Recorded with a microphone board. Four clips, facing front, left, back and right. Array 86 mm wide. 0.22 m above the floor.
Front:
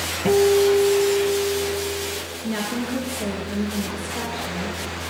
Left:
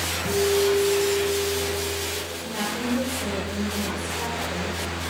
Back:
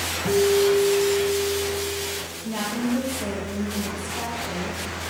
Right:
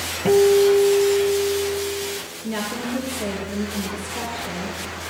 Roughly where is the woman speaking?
Ahead right.